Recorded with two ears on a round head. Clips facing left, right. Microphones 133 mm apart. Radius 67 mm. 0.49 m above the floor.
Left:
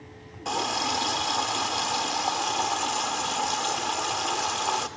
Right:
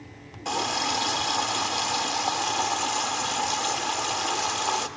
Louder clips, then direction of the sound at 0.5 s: Even; centre (ahead or behind).